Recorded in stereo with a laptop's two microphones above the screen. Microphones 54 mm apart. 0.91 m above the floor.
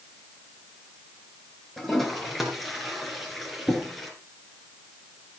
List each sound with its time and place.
1.8 s a toilet flushing: centre (ahead or behind), 4 m